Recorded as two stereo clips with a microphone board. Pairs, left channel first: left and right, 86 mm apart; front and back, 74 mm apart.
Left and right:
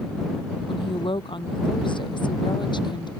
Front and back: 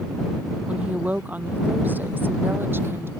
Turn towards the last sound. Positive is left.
turn(degrees=120)